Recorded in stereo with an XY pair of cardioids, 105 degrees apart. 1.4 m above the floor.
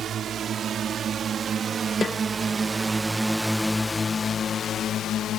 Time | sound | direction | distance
0.0 | a drone | 55° right | ?
2.0 | a snare drum | 35° left | ?